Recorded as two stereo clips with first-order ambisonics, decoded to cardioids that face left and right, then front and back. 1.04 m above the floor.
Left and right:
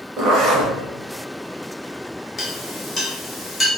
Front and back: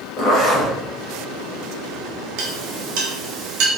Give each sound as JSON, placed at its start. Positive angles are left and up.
{"t": 0.2, "sound": "a zipper", "azimuth_deg": -50, "distance_m": 0.7}
{"t": 2.4, "sound": "a clink", "azimuth_deg": 165, "distance_m": 0.8}